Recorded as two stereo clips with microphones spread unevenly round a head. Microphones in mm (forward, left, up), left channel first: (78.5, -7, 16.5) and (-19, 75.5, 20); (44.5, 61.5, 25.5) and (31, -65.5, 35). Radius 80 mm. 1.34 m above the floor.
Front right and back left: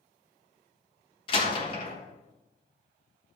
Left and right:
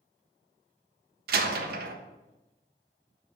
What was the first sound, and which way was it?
A door slam, 100° right.